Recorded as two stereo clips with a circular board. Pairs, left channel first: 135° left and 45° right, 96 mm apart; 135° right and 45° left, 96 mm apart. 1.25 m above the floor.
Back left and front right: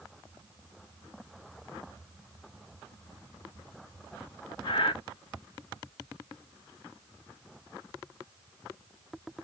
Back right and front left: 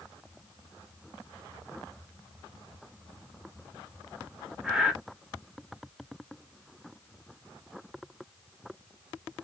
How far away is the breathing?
About 0.9 m.